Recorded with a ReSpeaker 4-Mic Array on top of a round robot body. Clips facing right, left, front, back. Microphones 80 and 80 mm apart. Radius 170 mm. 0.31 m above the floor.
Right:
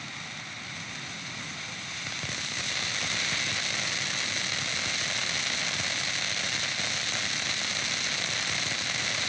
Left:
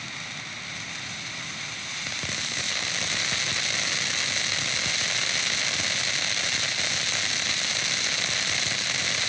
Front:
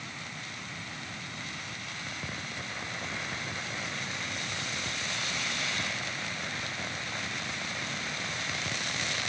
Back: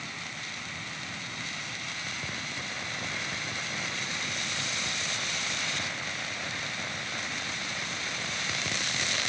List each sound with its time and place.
Only background noise.